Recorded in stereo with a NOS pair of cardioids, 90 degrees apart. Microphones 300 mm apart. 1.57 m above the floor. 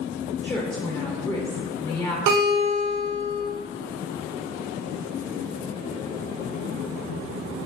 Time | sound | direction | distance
0.4 | a woman speaking | 15° left | 0.5 m
2.3 | a guitar | 70° right | 1.0 m